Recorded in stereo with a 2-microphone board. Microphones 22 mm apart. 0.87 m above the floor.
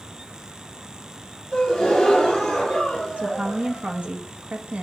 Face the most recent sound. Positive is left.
turn(degrees=-60)  # may be behind; listen again after turning